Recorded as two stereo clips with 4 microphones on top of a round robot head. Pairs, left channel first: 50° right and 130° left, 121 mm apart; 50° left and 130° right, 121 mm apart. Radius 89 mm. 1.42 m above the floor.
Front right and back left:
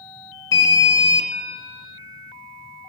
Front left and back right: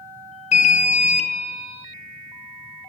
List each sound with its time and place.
0.5 s an alarm: 15° left, 1.0 m